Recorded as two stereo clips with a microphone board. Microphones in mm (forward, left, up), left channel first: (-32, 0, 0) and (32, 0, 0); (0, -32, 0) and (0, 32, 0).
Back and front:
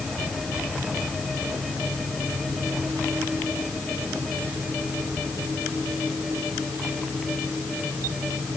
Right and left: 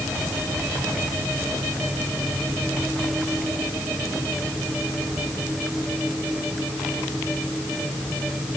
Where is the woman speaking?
I don't hear a woman speaking.